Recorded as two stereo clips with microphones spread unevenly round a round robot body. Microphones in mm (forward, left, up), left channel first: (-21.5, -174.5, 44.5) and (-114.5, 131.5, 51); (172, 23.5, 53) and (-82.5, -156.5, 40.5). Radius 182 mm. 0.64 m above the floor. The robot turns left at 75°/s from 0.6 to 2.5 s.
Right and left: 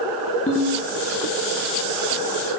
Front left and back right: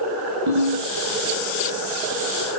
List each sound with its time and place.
0.5 s a ringtone: 140° right, 7 m; by 0.8 s 160° right, 7 m